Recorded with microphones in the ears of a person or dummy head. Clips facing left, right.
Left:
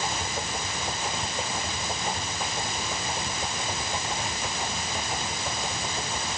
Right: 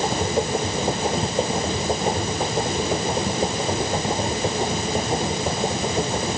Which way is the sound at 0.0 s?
35° right (ahead or behind).